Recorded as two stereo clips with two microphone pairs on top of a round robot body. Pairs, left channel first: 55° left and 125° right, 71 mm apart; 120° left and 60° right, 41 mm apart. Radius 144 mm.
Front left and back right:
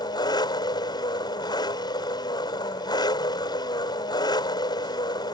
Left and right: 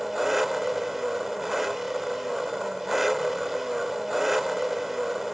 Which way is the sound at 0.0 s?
30° left.